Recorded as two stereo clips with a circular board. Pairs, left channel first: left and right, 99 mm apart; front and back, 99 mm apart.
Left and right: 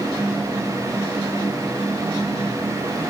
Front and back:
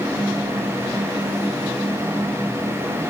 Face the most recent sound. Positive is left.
No sound to turn to.